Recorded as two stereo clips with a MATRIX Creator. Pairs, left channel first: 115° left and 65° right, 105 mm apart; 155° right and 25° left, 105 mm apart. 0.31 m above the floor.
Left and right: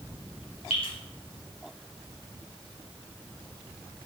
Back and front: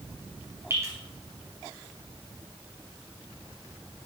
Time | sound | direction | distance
0.7 | dripping | 85° left | 2.5 m